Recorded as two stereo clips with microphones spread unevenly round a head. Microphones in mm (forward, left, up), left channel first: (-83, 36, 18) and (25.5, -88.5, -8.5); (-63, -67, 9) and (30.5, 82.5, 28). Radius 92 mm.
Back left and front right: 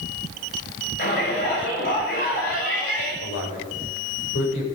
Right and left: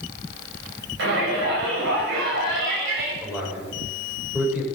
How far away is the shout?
About 8 m.